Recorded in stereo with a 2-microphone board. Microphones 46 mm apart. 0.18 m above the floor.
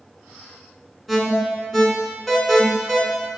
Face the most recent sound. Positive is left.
turn(degrees=5)  # may be behind; listen again after turning